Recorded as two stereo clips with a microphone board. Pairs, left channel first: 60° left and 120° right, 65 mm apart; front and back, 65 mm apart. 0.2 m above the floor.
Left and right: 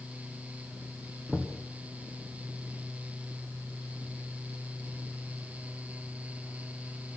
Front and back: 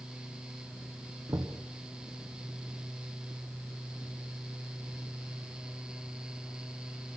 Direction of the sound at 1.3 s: 155° left.